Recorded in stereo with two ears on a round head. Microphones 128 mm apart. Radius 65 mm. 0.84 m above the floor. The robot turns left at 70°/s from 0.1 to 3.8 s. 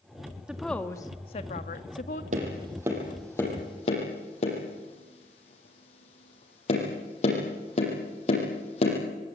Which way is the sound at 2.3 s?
55° right (ahead or behind).